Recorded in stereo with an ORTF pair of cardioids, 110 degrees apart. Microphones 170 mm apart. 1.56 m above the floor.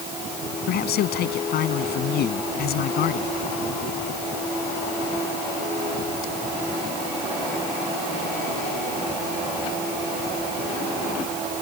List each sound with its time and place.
0.7 s a man speaking: 70° left